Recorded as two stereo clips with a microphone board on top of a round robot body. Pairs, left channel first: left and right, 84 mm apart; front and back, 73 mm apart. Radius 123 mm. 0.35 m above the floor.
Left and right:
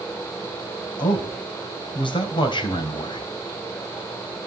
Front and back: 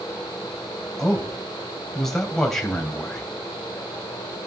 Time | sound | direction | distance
1.0 | a man speaking | 85° left | 2.5 m